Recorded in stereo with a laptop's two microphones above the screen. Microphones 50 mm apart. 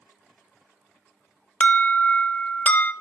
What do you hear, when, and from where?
1.6 s an alarm: 30° left (ahead or behind), 0.7 m